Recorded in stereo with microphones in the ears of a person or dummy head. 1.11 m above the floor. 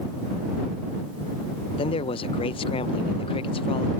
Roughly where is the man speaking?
Left.